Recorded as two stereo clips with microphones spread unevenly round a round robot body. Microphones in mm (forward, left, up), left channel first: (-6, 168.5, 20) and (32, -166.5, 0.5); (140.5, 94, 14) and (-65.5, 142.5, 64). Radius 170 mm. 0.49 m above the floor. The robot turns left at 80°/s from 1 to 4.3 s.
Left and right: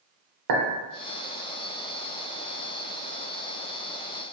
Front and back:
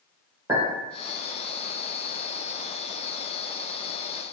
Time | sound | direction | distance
0.5 | a clink | 110° right | 0.8 m